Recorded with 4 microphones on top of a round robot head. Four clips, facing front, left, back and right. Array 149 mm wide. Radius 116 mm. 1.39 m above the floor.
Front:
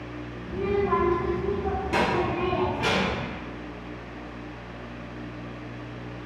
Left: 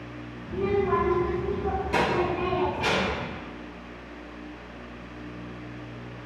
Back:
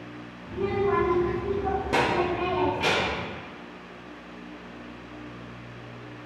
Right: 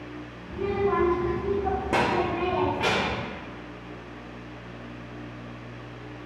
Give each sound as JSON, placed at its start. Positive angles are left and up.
{"t": 0.5, "sound": "a child speaking", "azimuth_deg": 110, "distance_m": 0.8}